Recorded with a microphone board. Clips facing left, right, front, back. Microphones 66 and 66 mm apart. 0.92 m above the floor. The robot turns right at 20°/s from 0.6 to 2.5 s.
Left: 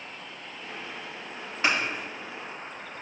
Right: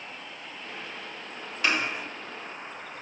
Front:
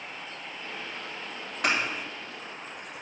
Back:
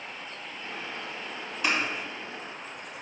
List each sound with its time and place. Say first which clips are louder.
1.6 s scissors: left 1 dB, front 1 dB; 25° left, 1.9 m